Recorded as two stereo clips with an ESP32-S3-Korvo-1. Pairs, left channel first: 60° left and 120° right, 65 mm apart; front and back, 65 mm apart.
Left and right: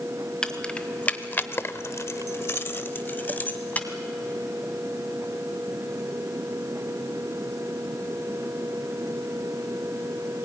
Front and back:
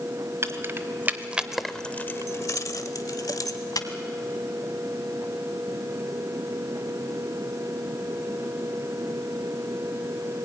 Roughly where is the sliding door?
No sliding door in this recording.